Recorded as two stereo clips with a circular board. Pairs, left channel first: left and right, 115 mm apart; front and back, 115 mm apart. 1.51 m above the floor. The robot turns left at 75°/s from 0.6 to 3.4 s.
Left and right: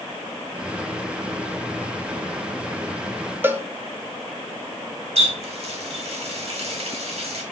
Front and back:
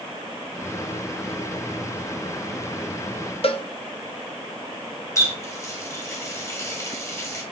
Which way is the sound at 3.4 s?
20° right.